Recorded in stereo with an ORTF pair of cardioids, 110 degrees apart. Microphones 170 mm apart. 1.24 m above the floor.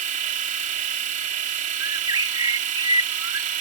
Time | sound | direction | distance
0.0 | a machine running | 50° right | ?
1.8 | a bird | 25° right | ?